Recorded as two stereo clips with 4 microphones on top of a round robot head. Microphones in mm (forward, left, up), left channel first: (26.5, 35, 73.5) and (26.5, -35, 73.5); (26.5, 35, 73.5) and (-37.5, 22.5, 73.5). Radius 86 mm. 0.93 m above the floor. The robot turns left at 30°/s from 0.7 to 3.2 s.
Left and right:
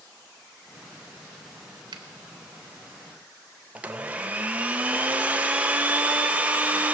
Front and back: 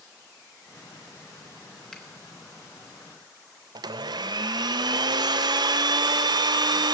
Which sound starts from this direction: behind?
A blender, at 3.8 s.